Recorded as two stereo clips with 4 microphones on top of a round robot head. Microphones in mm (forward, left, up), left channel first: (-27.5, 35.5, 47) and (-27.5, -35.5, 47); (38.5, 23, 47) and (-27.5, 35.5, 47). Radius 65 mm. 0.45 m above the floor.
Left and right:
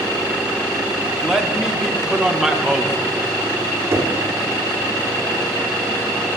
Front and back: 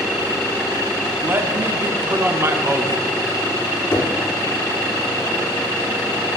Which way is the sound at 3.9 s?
55° right.